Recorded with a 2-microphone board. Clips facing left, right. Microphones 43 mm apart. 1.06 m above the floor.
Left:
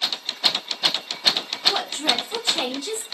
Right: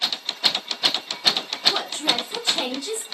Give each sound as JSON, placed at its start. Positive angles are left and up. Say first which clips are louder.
{"t": 1.7, "sound": "a woman speaking", "louder": "left 1 dB", "side_deg": 30, "distance_m": 1.6}